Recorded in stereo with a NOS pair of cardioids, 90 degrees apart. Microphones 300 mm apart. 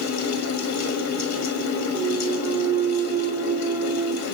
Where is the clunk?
15° right, 1.1 m.